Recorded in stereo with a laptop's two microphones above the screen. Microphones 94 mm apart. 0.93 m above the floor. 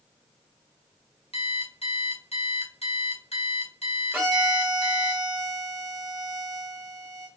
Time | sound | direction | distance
1.3 | an alarm clock | 80° left | 1.3 m
4.1 | a violin | 15° right (ahead or behind) | 2.5 m